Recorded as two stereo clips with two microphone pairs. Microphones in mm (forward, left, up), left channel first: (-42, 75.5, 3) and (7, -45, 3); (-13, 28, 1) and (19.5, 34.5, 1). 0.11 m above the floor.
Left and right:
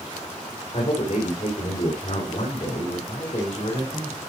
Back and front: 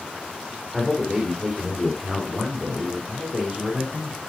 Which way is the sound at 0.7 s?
85° left.